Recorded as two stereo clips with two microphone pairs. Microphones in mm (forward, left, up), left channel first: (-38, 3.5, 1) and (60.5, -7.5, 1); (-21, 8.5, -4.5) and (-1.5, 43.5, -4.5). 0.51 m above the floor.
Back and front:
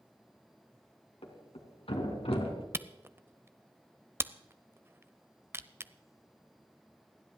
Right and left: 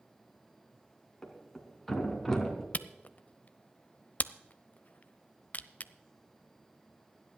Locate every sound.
1.2 s a thud: 155° left, 2.5 m
2.7 s a camera shutter: 70° right, 0.5 m